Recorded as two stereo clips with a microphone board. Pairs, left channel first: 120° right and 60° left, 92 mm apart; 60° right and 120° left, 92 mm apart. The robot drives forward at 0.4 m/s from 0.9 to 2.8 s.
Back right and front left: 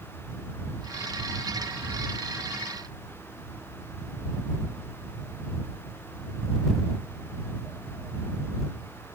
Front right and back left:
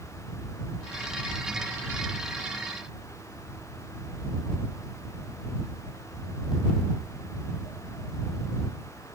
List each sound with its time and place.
Only background noise.